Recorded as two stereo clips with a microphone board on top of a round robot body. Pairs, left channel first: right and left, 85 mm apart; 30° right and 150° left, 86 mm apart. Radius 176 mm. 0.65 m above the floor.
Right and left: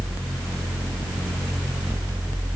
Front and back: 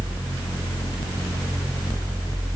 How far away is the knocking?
No knocking in this recording.